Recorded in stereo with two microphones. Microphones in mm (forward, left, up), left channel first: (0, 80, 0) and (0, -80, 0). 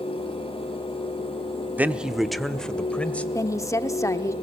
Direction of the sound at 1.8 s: 10° right (ahead or behind).